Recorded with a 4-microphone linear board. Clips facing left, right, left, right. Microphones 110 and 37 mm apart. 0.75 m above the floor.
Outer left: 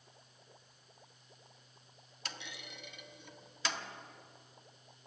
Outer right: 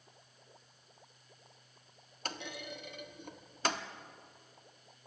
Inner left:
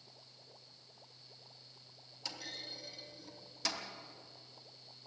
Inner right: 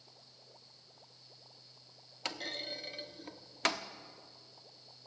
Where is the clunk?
50° right (ahead or behind), 1.1 m.